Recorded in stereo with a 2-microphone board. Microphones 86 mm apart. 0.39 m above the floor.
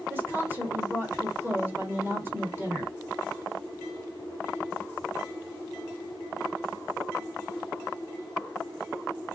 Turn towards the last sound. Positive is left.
turn(degrees=-25)  # may be behind; listen again after turning